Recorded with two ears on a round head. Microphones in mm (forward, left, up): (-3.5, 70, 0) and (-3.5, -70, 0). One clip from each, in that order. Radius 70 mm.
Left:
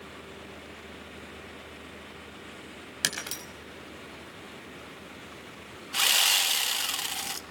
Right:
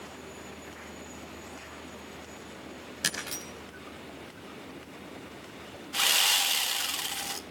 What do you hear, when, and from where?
3.0 s breaking glass: 30° left (ahead or behind), 5.5 m
5.9 s sawing: 10° left (ahead or behind), 1.2 m